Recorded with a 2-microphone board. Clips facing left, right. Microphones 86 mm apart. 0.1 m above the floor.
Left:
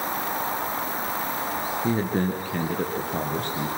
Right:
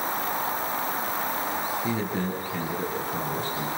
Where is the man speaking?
35° left (ahead or behind), 2 m; by 3.7 s 70° left (ahead or behind), 4.5 m.